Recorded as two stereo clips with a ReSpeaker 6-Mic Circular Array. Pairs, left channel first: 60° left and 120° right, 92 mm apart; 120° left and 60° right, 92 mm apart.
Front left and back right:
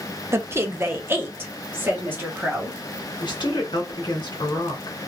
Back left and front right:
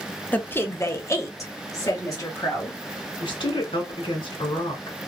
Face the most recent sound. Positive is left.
turn(degrees=100)